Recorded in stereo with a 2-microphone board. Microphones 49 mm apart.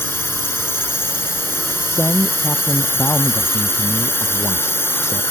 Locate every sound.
0.0 s a drone: 55° left (ahead or behind)
1.9 s a man speaking: 80° left